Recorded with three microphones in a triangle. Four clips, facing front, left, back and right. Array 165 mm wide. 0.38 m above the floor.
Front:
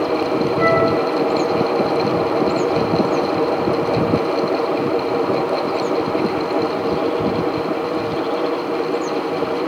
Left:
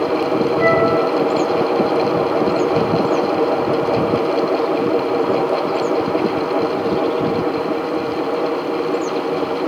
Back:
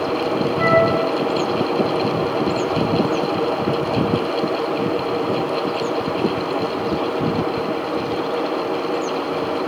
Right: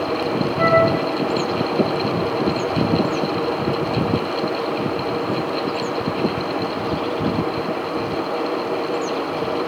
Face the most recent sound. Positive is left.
turn(degrees=-75)